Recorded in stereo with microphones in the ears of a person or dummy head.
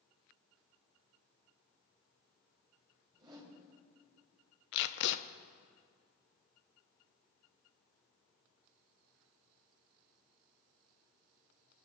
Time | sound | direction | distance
3.1 | a whoosh | 30° right (ahead or behind) | 3.5 m
4.7 | tape being pulled | 70° left (ahead or behind) | 0.8 m